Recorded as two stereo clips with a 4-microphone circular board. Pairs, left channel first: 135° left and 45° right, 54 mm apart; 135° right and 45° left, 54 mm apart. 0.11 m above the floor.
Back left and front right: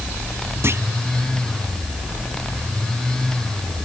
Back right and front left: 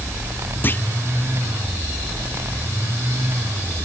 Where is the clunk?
80° right.